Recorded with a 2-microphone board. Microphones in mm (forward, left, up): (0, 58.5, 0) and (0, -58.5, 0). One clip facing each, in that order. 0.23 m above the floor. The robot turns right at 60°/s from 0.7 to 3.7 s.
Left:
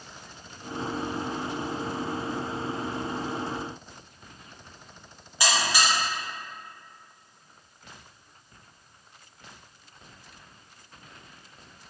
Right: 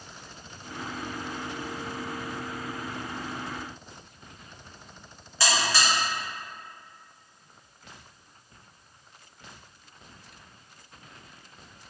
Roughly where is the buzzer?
Centre.